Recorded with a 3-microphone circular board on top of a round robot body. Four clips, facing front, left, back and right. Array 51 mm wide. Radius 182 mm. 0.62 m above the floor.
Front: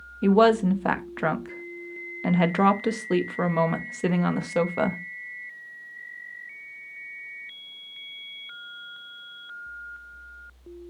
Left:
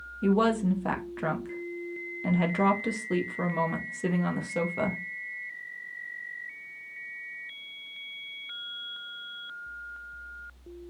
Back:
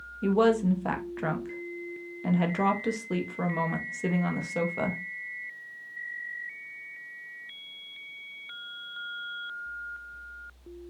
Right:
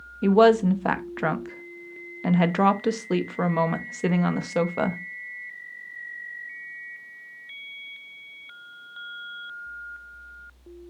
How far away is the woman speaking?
About 1.1 m.